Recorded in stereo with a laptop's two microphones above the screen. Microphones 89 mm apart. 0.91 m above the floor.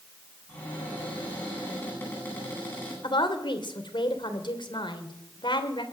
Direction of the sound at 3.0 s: 65° left (ahead or behind).